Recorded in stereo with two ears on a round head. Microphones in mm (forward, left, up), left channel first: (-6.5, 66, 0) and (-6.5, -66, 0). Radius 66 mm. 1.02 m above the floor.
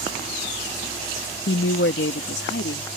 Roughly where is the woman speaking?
Left.